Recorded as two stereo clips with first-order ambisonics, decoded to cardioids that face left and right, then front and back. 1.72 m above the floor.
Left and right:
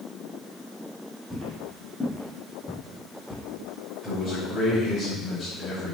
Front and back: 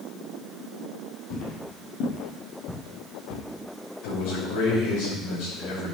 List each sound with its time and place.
1.3 s footsteps: 5° right, 3.5 m; by 3.4 s 20° left, 3 m
4.0 s a man speaking: 10° left, 6.5 m